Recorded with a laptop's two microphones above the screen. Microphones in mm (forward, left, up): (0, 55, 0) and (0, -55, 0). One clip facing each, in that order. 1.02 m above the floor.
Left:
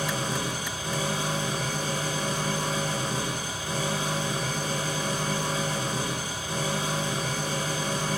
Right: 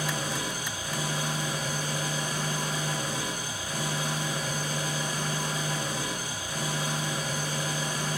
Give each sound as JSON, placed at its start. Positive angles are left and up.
{"t": 0.0, "sound": "an engine running", "side_deg": 30, "distance_m": 4.0}